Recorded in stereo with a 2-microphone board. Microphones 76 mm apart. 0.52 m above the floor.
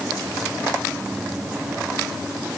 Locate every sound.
Only background noise.